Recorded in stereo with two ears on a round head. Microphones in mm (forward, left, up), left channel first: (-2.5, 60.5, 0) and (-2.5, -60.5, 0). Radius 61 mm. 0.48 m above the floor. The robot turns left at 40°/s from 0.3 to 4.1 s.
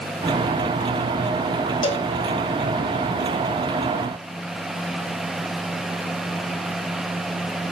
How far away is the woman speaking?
I don't hear a woman speaking.